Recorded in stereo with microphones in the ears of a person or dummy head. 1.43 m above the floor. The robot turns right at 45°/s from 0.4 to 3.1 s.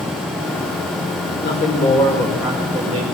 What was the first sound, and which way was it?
A man speaking, 135° left.